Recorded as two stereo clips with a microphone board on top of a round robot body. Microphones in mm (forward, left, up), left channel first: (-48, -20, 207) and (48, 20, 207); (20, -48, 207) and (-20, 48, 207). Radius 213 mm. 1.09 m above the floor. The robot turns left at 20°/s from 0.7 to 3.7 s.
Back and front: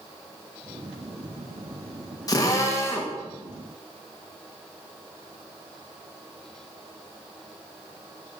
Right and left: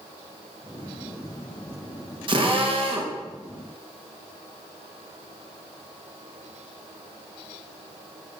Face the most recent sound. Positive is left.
turn(degrees=120)